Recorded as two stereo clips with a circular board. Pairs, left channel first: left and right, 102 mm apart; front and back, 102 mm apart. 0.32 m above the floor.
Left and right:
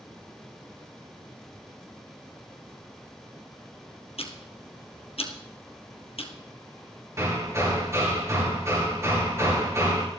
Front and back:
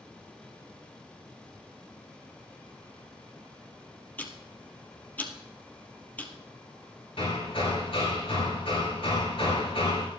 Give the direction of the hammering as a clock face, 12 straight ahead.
1 o'clock.